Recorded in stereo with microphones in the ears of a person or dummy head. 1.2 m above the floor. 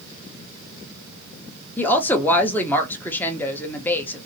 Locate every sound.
1.8 s a woman speaking: 15° left (ahead or behind), 0.7 m